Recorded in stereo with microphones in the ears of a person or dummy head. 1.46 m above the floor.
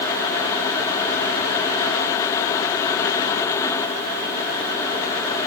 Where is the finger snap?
I don't hear a finger snap.